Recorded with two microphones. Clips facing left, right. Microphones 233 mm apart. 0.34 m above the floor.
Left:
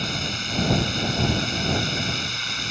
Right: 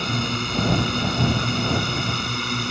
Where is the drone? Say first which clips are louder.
Right 5 dB; 65° right (ahead or behind); by 2.7 s 60° right (ahead or behind).